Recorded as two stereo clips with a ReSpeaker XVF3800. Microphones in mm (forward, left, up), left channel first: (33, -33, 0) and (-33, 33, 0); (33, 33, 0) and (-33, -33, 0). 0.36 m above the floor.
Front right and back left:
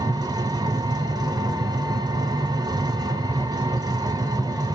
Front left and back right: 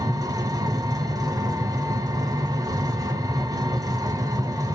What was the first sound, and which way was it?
An engine running, 175° left.